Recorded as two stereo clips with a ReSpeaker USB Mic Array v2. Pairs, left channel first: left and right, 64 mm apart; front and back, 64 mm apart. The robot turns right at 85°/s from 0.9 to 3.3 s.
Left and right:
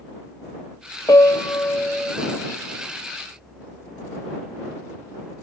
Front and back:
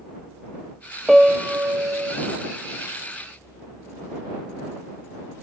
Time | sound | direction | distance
1.1 | a piano | 90° left | ?